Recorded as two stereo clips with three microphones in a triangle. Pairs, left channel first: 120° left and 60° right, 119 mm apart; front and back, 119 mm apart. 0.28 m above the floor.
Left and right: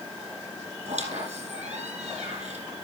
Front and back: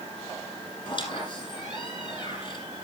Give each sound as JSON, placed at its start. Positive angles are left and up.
{"t": 0.8, "sound": "a squeak", "azimuth_deg": -50, "distance_m": 5.5}